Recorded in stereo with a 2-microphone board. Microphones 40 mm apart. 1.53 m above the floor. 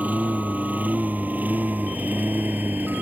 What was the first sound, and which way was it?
A lawn mower, 40° right (ahead or behind).